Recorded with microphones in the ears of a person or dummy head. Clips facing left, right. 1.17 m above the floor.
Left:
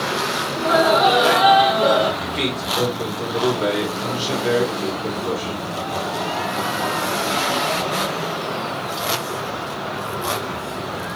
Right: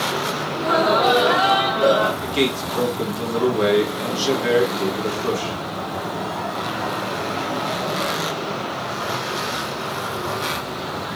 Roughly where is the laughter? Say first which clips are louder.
Left 2 dB; right.